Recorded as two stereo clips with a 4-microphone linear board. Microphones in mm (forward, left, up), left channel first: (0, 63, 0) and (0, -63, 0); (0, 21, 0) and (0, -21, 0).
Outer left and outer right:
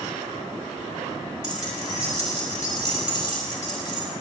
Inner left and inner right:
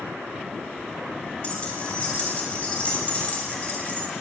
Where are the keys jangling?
30° left (ahead or behind), 3.5 m.